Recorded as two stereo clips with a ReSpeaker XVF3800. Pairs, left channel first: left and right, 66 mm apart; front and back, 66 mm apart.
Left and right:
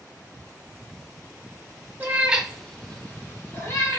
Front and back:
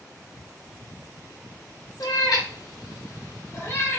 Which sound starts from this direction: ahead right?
A cat meowing, at 2.0 s.